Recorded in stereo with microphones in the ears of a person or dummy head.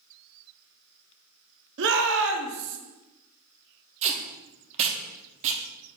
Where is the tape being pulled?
35° right (ahead or behind), 0.6 m.